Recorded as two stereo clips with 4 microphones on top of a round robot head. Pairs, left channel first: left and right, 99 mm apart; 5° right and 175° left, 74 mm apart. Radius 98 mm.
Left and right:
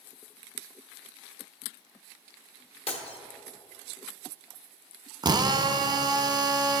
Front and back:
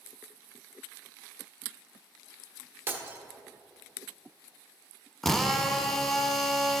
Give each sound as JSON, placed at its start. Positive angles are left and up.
{"t": 2.9, "sound": "breaking glass", "azimuth_deg": 115, "distance_m": 1.2}
{"t": 5.2, "sound": "a drill", "azimuth_deg": -90, "distance_m": 0.7}